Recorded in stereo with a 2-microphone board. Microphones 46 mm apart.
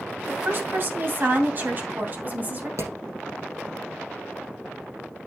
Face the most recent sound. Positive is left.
turn(degrees=-85)